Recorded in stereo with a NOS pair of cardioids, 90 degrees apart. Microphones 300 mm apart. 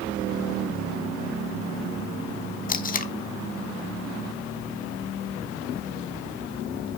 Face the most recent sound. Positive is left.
turn(degrees=30)